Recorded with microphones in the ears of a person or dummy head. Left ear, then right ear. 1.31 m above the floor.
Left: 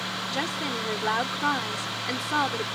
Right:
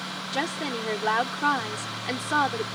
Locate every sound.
0.3 s a woman speaking: 10° right (ahead or behind)